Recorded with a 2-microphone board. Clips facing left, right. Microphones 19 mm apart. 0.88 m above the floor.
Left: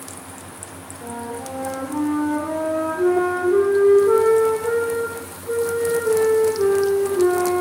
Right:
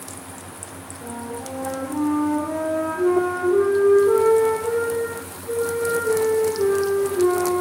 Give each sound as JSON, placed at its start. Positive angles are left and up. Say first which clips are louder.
{"t": 1.0, "sound": "a flute", "louder": "left 2 dB", "side_deg": 50, "distance_m": 9.0}